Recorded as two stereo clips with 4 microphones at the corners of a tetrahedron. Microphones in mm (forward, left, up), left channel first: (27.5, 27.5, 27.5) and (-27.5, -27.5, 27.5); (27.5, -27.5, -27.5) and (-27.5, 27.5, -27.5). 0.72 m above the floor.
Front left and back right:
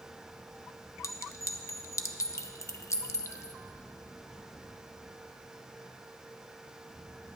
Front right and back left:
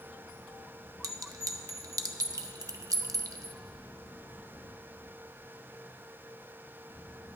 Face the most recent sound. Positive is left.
turn(degrees=95)